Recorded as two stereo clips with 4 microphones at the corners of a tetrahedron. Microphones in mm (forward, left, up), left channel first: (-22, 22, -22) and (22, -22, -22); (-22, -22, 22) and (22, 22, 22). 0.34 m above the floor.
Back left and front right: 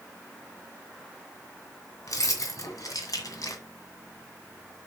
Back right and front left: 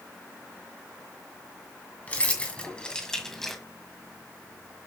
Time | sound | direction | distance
2.1 | keys jangling | 160° left | 2 m